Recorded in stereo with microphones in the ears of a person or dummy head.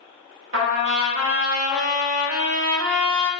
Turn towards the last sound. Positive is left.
turn(degrees=-75)  # may be behind; listen again after turning